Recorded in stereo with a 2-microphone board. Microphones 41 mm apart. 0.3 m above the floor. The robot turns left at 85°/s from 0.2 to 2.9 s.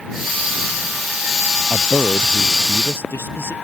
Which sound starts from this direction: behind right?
A man speaking, at 1.7 s.